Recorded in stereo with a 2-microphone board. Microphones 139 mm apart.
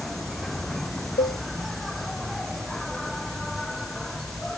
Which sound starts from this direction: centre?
An insect, at 0.0 s.